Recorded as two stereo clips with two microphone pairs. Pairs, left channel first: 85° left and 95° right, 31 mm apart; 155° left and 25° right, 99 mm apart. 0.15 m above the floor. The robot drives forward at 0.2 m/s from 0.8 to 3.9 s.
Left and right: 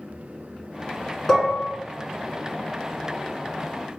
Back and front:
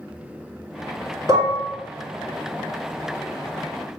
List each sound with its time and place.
1.3 s dishes clattering: 10° left, 1.0 m